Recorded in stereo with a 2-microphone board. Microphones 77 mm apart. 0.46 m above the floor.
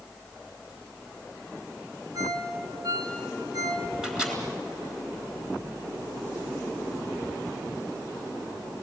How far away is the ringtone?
About 4 m.